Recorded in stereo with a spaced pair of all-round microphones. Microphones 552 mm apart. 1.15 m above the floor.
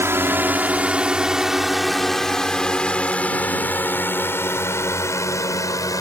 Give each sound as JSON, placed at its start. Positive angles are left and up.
{"t": 0.0, "sound": "a drone", "side_deg": -5}